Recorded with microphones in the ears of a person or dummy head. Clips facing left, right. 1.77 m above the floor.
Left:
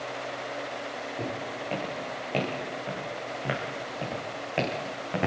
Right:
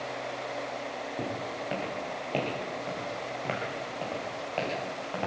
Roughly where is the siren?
I don't hear a siren.